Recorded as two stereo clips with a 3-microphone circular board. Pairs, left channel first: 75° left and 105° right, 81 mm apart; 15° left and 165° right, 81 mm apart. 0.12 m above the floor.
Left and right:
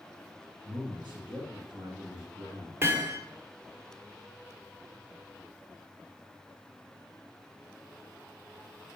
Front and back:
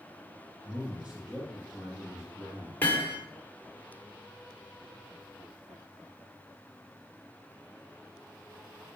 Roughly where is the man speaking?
Right.